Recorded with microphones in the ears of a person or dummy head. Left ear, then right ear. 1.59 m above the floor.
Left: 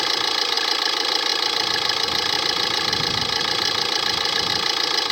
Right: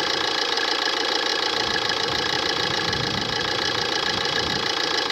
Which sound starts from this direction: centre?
An engine running, at 0.0 s.